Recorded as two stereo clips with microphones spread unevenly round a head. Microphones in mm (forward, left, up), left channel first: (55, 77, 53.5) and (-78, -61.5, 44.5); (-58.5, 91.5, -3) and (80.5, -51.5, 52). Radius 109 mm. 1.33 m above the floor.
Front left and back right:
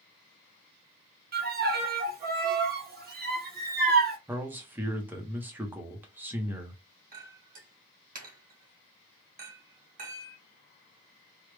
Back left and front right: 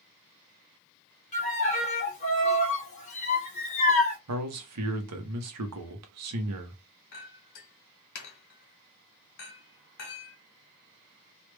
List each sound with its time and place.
1.3 s a violin: 175° right, 1.1 m
4.3 s a man speaking: 55° right, 0.9 m
7.1 s a clink: straight behind, 1.7 m